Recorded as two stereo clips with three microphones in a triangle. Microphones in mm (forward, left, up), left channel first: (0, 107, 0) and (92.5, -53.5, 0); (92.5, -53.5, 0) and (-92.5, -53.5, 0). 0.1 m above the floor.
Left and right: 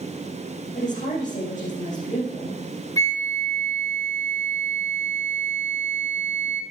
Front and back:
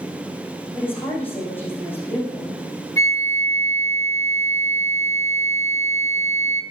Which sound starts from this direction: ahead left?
A flute, at 3.0 s.